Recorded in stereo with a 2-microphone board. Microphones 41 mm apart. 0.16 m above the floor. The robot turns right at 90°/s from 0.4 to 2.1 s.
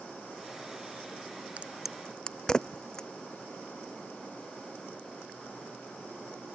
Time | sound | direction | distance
1.6 | a crack | 30° right (ahead or behind) | ?